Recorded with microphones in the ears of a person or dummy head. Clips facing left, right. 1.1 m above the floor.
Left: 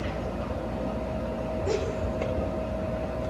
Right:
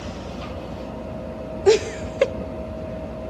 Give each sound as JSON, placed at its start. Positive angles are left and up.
{"t": 1.7, "sound": "laughter", "side_deg": -75, "distance_m": 0.9}